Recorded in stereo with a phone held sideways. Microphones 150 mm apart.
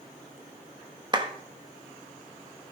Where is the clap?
30° right (ahead or behind), 0.9 m.